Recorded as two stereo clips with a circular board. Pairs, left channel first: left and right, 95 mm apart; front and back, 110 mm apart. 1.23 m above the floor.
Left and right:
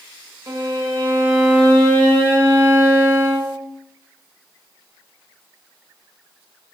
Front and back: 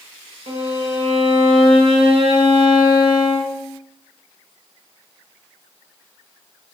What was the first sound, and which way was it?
A violin, 155° right.